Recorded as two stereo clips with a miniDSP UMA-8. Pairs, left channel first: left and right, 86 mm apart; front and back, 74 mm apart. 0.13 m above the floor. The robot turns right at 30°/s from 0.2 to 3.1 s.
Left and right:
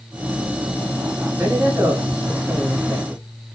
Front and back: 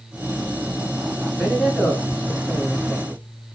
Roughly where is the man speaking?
Right.